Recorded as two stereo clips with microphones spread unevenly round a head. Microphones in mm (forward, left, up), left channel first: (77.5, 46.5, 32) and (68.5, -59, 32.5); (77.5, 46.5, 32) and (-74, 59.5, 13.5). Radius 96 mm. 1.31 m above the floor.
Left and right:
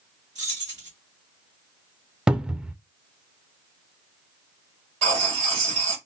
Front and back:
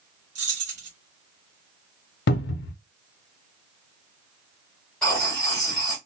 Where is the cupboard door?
10° right, 0.5 m.